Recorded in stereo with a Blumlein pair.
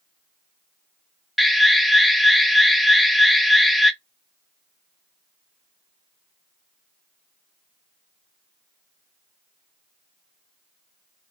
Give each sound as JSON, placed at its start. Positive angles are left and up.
{"t": 1.4, "sound": "an alarm", "azimuth_deg": 5, "distance_m": 0.5}